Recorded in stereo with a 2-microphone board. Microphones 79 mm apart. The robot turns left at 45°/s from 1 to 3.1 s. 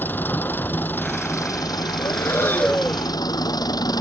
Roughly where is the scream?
No scream in this recording.